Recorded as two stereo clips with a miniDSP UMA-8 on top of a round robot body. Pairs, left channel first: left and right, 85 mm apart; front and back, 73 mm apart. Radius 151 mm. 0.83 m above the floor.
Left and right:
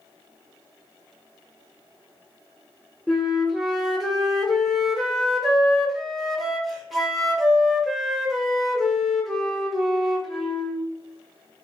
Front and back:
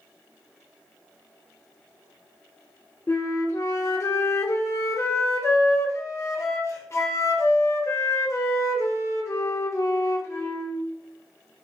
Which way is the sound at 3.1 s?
Straight ahead.